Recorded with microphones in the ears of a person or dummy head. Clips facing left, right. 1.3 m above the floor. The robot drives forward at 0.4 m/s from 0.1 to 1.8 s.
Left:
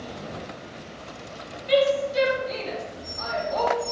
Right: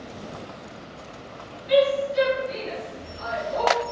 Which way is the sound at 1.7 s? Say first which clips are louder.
Right 1 dB; 70° left (ahead or behind).